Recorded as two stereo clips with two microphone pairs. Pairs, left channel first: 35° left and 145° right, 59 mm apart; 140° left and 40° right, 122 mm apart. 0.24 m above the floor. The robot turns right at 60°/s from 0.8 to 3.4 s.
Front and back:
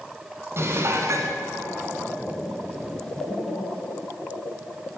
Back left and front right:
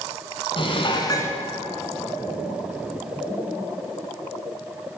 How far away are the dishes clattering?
About 1.7 m.